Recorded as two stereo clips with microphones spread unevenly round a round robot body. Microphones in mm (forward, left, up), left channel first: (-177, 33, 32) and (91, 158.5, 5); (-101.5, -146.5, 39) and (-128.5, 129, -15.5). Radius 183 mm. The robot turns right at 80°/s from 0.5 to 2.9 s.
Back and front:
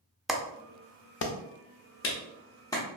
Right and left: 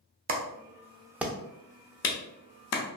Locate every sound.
0.3 s a clap: 110° left, 0.5 m; by 2.8 s 65° right, 0.5 m